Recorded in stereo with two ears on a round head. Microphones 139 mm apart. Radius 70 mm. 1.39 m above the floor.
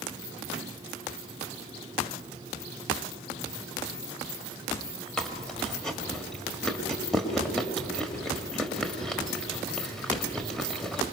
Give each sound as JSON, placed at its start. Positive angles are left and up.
{"t": 5.2, "sound": "chewing", "side_deg": 5, "distance_m": 1.3}